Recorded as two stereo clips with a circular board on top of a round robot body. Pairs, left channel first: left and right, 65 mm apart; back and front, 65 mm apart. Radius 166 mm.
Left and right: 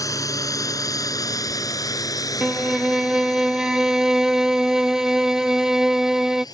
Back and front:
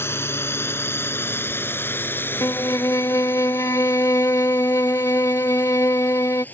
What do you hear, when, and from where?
0.0 s a drone: 125° left; by 6.5 s 115° left
2.4 s a violin: 170° right